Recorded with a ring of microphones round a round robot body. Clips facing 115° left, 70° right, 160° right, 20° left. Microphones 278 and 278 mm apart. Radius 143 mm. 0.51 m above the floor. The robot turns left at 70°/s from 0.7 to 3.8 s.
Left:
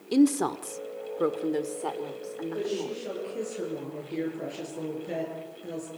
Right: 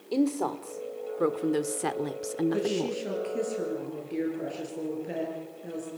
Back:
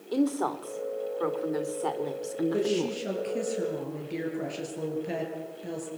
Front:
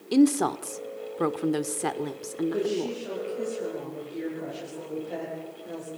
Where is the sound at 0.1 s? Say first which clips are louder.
Left 5 dB, front 6 dB; 60° left, 1.2 m; by 3.0 s 100° right, 1.2 m.